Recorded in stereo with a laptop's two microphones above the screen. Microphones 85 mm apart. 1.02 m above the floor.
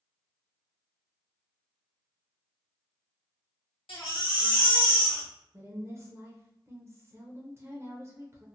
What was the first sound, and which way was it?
A baby crying, 85° left.